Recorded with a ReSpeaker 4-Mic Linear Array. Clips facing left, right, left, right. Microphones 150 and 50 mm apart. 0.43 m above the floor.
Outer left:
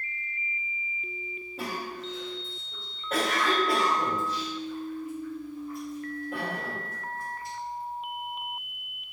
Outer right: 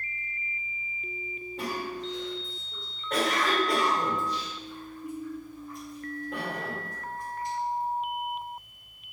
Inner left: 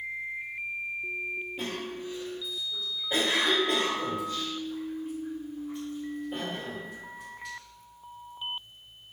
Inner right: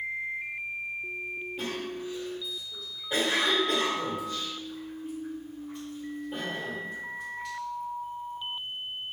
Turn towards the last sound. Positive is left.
turn(degrees=5)  # may be behind; listen again after turning